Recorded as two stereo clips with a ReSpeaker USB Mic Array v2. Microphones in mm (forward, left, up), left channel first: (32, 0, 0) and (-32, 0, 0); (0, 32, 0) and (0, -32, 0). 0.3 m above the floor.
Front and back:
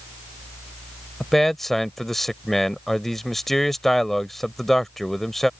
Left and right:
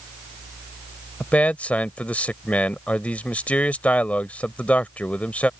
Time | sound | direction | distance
1.2 | a man speaking | 80° left | ?